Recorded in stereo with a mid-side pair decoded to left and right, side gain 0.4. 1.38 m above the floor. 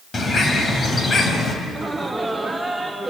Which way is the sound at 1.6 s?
15° right.